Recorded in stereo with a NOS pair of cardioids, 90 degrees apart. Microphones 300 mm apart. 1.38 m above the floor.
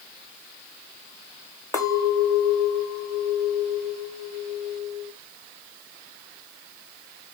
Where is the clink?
10° left, 0.9 m.